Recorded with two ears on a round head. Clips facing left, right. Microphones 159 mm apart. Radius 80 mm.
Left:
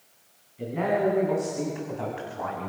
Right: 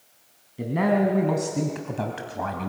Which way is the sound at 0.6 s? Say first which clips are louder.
Right 3 dB; 70° right (ahead or behind).